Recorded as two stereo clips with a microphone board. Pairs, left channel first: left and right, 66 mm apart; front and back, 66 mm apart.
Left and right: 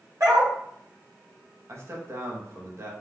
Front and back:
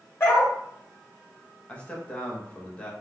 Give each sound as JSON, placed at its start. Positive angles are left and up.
{"t": 0.2, "sound": "a dog barking", "azimuth_deg": -55, "distance_m": 1.7}
{"t": 1.7, "sound": "a man speaking", "azimuth_deg": -65, "distance_m": 0.8}